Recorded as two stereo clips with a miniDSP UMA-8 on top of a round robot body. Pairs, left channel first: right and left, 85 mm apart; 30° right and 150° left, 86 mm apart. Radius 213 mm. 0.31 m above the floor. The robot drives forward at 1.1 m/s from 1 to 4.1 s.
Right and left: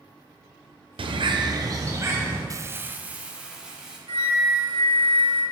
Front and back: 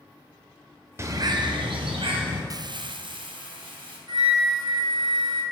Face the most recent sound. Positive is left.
turn(degrees=115)